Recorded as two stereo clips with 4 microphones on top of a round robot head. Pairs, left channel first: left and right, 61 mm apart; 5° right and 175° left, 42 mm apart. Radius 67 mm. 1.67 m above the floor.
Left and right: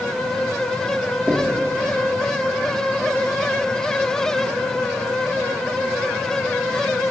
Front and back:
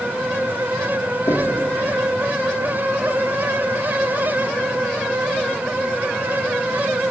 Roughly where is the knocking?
Ahead.